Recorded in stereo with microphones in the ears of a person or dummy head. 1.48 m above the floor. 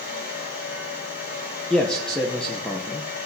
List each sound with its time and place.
0.0 s a fan: 50° left (ahead or behind), 3 m
1.7 s a man speaking: 5° left (ahead or behind), 0.7 m